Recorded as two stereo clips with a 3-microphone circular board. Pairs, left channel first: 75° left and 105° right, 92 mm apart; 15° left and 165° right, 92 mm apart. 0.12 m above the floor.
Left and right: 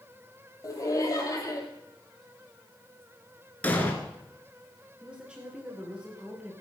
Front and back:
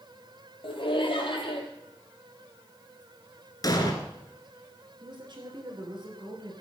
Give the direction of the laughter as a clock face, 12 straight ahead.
11 o'clock.